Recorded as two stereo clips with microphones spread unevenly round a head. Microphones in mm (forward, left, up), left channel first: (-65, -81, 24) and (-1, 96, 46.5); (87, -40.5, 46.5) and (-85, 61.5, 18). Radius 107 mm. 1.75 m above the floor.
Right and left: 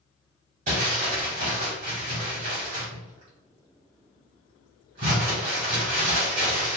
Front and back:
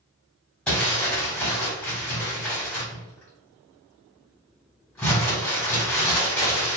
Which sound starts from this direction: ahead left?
Crumpling, at 0.7 s.